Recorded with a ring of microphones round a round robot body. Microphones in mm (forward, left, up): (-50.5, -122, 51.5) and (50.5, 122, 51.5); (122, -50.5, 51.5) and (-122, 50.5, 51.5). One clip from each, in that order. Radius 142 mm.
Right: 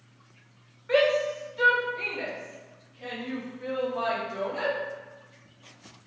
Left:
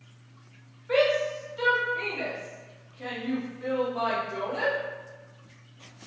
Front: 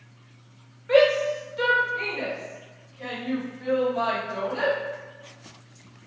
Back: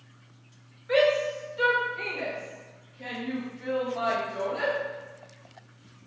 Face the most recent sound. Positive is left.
turn(degrees=35)